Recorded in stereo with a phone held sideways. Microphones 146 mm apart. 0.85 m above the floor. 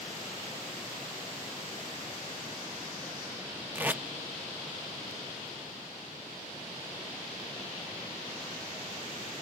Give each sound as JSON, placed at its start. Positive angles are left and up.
{"t": 3.8, "sound": "tape being pulled", "side_deg": -10, "distance_m": 0.6}